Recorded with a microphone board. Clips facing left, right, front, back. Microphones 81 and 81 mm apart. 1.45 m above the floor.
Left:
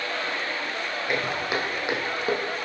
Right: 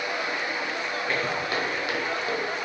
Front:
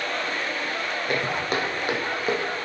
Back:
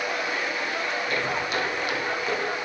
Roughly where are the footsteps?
Ahead.